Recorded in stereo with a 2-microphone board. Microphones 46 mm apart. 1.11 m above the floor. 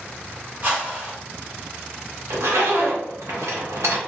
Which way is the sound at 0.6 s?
45° right (ahead or behind).